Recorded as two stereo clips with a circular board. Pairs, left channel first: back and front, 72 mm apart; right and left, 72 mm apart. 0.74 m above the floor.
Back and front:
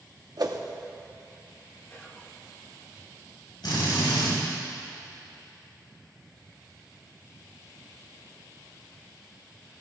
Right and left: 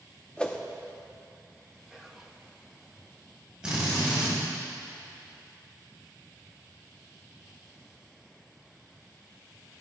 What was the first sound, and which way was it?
A whoosh, 15° right.